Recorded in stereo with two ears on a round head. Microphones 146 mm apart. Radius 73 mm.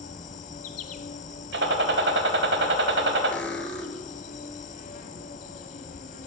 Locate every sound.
0.0 s an insect: 50° left (ahead or behind), 1.2 m
1.5 s a gunshot: 70° right (ahead or behind), 1.2 m
3.3 s cutlery clinking: 10° left (ahead or behind), 1.5 m